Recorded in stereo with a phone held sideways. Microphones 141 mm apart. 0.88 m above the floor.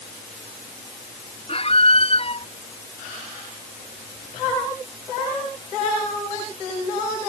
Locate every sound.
1.5 s a squeak: 45° left (ahead or behind)